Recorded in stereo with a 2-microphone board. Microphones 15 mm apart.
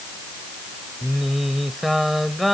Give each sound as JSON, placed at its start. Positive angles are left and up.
{"t": 1.0, "sound": "singing", "side_deg": 0}